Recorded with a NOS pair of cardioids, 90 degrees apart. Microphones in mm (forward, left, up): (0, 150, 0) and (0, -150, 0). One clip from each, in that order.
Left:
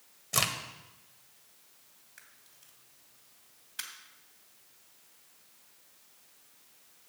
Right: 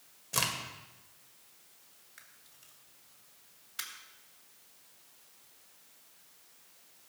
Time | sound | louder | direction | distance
0.3 | a crack | left 2 dB | 20° left | 1.7 m
2.2 | a camera shutter | even | straight ahead | 3 m